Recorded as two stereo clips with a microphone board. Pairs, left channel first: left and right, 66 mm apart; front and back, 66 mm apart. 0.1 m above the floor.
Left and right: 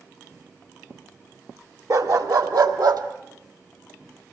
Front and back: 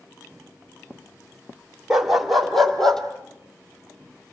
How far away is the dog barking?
About 1.3 m.